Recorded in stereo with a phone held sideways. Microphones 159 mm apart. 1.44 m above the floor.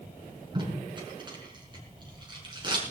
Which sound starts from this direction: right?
Tape being pulled, at 0.6 s.